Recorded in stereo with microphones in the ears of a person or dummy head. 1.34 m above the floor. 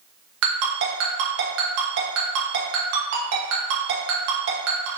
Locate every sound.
0.4 s a ringtone: 65° right (ahead or behind), 1.2 m